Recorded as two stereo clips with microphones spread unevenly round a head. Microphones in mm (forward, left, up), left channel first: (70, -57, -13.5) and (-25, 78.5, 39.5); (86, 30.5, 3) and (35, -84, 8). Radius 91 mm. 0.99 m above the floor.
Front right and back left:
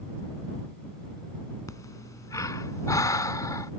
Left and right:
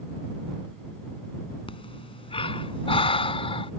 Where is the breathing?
20° left.